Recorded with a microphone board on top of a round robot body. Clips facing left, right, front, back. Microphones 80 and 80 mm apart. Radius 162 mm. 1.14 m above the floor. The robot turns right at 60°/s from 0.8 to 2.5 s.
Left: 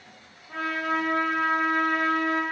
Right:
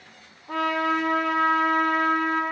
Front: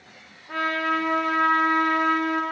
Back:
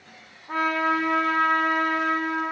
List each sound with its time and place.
0.5 s a trumpet: 110° right, 1.0 m; by 2.4 s 15° right, 1.0 m